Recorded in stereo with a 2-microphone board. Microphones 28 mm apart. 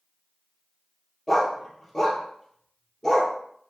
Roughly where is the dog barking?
Centre.